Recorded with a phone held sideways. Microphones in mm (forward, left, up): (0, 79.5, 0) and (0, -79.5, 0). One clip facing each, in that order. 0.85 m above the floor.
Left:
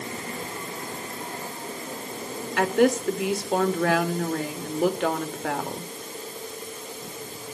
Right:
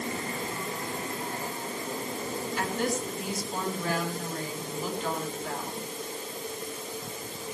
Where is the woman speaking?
80° left, 2.5 m.